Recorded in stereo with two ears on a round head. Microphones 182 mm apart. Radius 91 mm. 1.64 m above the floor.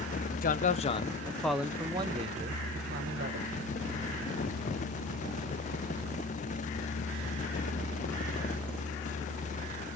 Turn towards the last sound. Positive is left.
turn(degrees=-55)  # may be behind; listen again after turning